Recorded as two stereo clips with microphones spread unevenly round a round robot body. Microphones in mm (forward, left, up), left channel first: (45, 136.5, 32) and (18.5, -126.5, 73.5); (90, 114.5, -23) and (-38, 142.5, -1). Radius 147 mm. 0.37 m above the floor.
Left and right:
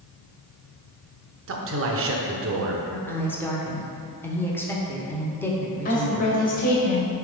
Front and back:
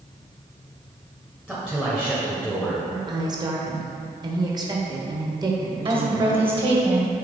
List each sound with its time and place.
1.5 s a man speaking: 95° right, 1.0 m
2.9 s a woman speaking: 135° left, 1.0 m
5.8 s a woman speaking: 125° left, 1.9 m